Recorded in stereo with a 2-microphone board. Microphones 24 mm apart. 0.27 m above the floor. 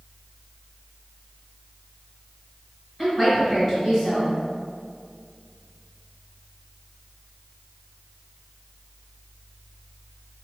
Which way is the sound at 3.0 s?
10° right (ahead or behind).